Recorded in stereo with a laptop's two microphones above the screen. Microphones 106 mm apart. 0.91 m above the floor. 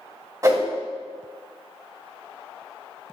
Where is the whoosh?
30° right (ahead or behind), 0.9 m.